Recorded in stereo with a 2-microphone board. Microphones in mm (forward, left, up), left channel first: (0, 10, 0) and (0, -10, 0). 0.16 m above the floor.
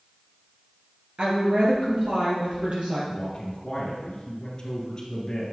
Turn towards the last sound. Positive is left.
turn(degrees=35)  # may be behind; listen again after turning